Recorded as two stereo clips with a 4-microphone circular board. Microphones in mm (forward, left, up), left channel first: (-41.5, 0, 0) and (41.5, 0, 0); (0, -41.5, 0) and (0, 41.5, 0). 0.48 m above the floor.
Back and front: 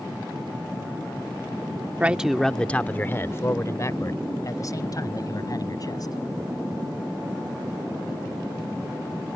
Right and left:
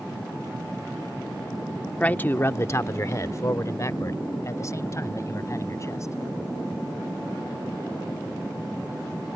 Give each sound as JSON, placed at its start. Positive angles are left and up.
{"t": 2.0, "sound": "a man speaking", "azimuth_deg": -45}